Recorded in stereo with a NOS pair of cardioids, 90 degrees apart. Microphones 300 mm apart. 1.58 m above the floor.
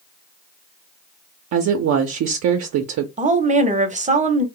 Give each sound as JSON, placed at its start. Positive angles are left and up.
{"t": 1.5, "sound": "a woman speaking", "azimuth_deg": -65, "distance_m": 0.5}
{"t": 3.2, "sound": "a woman speaking", "azimuth_deg": -25, "distance_m": 0.7}